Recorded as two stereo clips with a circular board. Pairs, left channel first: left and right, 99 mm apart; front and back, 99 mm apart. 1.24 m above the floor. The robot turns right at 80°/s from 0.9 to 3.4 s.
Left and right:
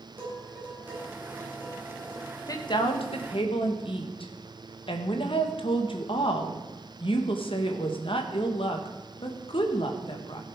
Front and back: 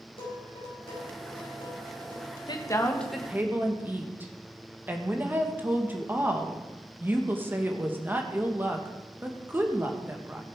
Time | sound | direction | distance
0.2 | dishes clattering | 20° right | 5.5 m
2.5 | a woman speaking | 40° left | 1.6 m